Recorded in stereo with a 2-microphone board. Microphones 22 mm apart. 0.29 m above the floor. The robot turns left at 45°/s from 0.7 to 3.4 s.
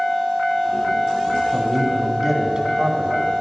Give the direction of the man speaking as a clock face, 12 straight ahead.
12 o'clock.